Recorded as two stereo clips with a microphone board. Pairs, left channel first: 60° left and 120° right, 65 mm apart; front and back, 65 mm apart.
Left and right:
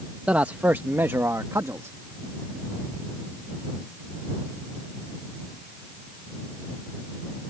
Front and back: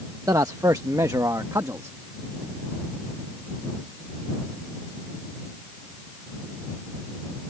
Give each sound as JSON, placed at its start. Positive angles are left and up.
{"t": 0.3, "sound": "a man speaking", "azimuth_deg": 170}